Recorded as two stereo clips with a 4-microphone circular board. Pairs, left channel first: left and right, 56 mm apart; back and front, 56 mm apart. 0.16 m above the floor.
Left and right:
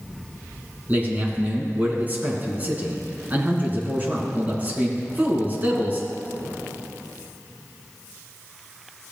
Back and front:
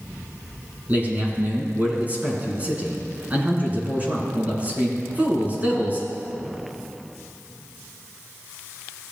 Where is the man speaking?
45° right, 2 m.